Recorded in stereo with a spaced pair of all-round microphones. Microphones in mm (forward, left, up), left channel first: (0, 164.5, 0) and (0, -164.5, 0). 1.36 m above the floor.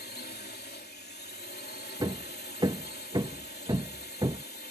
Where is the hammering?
15° right (ahead or behind).